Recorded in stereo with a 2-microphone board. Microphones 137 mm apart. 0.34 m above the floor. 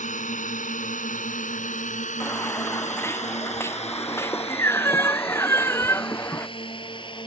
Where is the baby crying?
20° left (ahead or behind).